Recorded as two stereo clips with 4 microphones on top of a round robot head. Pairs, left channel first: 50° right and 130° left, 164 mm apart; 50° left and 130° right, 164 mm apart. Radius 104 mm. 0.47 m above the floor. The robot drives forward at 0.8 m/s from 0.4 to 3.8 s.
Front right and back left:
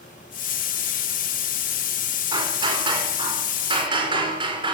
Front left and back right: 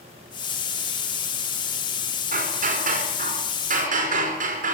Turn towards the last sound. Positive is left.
turn(degrees=-170)